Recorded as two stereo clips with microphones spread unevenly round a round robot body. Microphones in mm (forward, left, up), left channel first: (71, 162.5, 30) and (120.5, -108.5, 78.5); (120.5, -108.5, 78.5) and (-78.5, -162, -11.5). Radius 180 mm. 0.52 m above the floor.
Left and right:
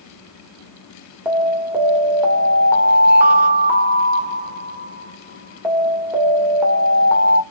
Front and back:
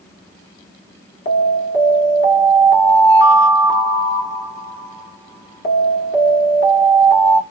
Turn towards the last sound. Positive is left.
turn(degrees=15)